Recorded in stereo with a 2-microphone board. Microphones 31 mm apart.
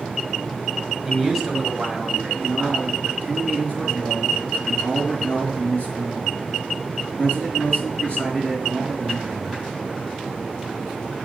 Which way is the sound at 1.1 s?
10° right (ahead or behind).